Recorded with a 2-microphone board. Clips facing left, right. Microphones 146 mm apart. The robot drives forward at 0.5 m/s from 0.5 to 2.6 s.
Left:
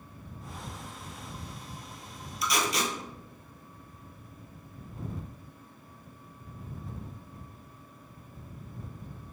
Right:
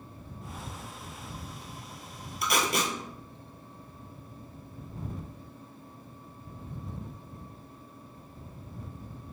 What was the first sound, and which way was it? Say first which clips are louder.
Tape being pulled: right 1 dB; 65° right (ahead or behind).